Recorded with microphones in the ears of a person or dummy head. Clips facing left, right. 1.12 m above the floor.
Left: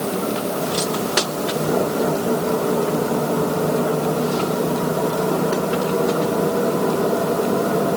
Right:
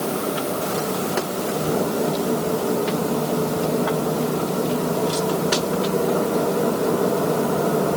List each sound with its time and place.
Only background noise.